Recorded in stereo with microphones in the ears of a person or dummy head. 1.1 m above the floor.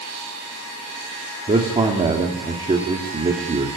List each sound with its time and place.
1.5 s a man speaking: 25° right (ahead or behind), 2.5 m